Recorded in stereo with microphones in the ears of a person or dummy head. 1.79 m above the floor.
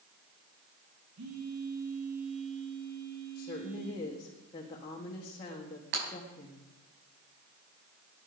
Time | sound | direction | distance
1.2 | a phone buzzing | 80° right | 3.5 m
3.4 | a woman speaking | 25° left (ahead or behind) | 1.8 m
5.9 | breaking glass | 65° right (ahead or behind) | 6 m